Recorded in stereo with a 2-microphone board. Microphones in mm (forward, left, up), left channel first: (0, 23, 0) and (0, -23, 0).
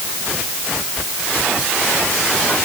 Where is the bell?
I don't hear a bell.